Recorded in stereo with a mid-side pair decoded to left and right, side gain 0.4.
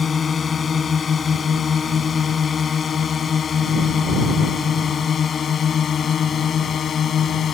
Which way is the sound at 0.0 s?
45° left.